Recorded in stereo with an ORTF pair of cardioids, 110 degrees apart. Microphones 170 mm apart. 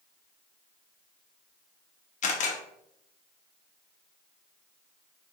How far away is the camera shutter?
About 1.0 m.